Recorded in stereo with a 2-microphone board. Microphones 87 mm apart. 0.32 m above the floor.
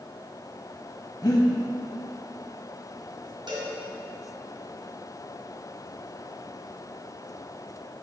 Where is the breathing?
45° left (ahead or behind), 1.1 m.